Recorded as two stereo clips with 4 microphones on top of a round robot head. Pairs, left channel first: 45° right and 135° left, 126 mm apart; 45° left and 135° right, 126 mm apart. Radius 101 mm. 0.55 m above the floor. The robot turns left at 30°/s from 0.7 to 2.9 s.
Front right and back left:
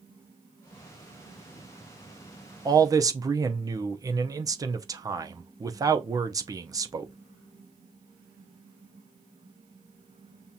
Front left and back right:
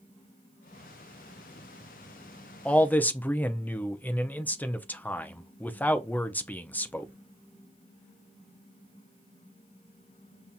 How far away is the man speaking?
About 0.7 m.